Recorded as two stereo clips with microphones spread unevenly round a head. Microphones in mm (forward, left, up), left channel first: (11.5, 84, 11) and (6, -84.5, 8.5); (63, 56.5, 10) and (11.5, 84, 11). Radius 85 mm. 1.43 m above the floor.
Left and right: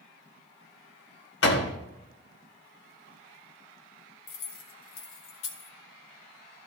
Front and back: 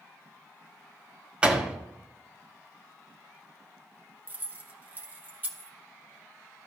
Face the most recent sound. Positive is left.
turn(degrees=95)